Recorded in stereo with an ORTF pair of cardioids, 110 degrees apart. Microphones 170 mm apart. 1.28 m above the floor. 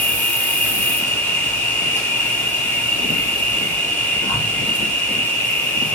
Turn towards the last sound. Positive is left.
turn(degrees=10)